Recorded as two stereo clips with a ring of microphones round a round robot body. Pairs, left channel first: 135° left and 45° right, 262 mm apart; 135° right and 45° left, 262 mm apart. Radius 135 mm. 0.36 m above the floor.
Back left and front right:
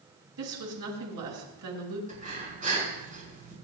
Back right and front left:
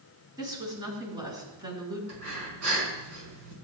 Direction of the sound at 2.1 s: 15° left.